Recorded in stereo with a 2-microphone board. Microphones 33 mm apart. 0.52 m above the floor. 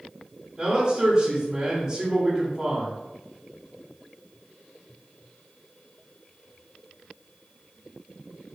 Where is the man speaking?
20° right (ahead or behind), 1.5 m.